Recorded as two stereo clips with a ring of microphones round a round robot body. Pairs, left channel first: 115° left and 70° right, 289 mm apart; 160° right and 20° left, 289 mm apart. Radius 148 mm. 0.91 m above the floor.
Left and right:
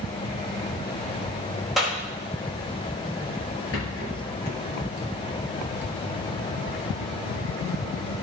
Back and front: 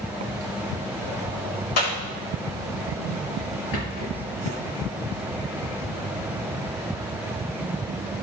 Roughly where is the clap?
Behind right.